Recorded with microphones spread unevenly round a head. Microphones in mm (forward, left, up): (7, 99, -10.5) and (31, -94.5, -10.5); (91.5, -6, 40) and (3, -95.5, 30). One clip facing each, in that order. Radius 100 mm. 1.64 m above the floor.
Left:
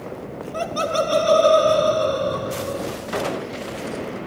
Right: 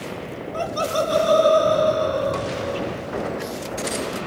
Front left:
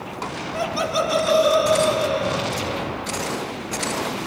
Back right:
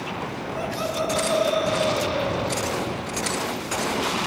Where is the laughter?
30° left, 3.5 m; by 2.9 s 55° left, 6.5 m.